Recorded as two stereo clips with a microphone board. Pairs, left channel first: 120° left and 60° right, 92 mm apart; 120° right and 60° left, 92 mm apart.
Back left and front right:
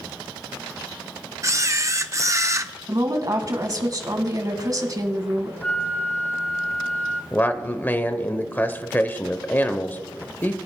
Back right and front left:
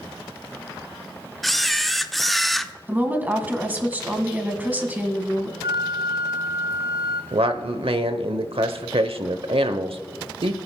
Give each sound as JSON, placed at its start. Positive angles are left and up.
{"t": 1.4, "sound": "a camera shutter", "azimuth_deg": -35, "distance_m": 0.5}
{"t": 2.9, "sound": "a woman speaking", "azimuth_deg": -10, "distance_m": 1.8}
{"t": 5.6, "sound": "a flute", "azimuth_deg": 40, "distance_m": 1.4}
{"t": 7.3, "sound": "a man speaking", "azimuth_deg": 50, "distance_m": 0.8}